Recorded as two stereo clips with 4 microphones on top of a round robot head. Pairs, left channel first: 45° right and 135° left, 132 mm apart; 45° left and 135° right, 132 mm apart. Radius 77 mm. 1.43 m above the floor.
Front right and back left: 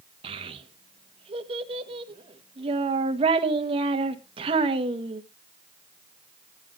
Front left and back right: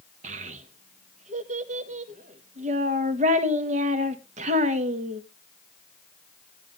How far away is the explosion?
No explosion in this recording.